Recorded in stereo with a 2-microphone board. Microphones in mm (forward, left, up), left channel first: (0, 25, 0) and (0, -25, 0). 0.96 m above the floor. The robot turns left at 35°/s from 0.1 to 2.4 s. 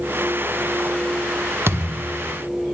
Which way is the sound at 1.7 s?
55° right (ahead or behind).